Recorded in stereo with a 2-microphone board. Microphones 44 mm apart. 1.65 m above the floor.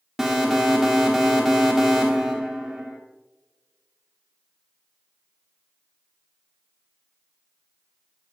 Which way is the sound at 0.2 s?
Centre (ahead or behind).